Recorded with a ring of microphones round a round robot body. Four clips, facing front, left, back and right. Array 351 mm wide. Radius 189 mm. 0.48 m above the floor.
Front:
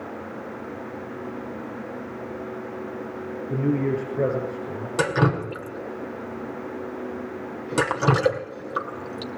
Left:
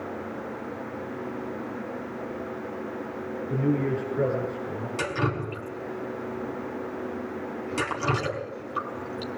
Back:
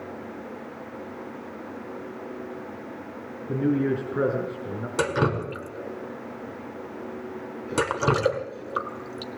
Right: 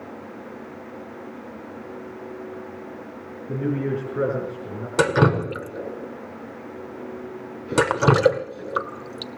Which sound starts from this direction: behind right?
A man speaking, at 3.5 s.